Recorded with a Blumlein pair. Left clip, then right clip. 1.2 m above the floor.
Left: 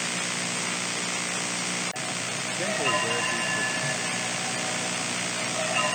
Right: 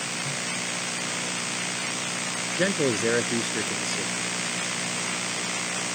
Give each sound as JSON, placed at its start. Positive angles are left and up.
{"t": 2.6, "sound": "a man speaking", "azimuth_deg": -65}